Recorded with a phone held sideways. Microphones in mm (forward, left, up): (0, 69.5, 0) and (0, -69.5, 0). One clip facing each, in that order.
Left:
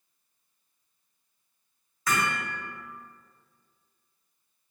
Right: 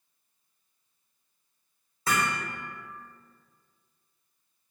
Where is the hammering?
30° right (ahead or behind), 0.8 m.